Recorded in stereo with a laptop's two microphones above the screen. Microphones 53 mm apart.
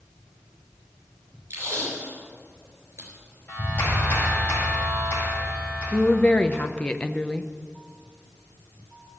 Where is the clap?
30° left (ahead or behind), 5 m.